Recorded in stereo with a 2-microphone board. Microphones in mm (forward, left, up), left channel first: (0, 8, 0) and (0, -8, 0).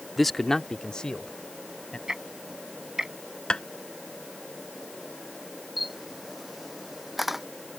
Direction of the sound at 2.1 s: 40° right (ahead or behind).